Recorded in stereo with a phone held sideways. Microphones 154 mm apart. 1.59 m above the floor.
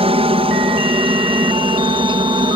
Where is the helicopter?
40° right (ahead or behind); by 2.6 s 30° right (ahead or behind).